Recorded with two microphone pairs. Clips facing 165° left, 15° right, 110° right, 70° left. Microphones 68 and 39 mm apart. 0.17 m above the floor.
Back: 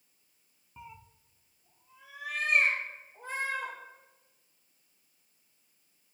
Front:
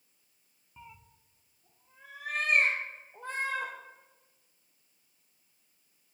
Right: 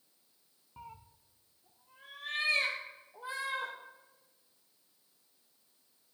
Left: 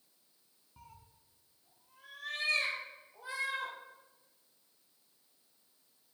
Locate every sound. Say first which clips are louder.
0.8 s a cat meowing: back 3 dB, right 7 dB; 130° right, 0.6 m; by 3.7 s 45° right, 3.5 m